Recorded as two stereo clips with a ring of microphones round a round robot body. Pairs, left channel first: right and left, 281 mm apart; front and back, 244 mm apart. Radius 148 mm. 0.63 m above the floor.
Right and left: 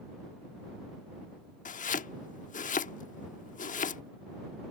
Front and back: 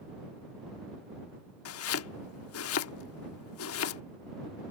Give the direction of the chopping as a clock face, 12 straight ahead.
1 o'clock.